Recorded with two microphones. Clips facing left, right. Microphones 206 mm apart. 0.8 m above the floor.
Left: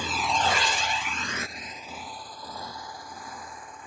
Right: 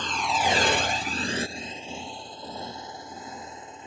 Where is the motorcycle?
10° left (ahead or behind); by 3.9 s 25° right (ahead or behind).